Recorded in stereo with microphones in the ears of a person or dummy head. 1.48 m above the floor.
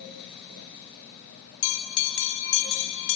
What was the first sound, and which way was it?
A bell, 75° left (ahead or behind).